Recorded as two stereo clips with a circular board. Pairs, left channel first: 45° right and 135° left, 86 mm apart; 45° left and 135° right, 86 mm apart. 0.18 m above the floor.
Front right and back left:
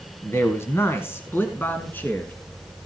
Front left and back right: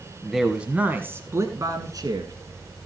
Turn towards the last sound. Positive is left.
turn(degrees=-110)